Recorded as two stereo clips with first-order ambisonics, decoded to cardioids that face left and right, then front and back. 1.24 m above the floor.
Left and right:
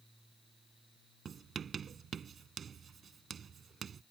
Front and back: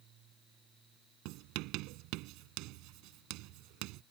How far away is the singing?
I don't hear singing.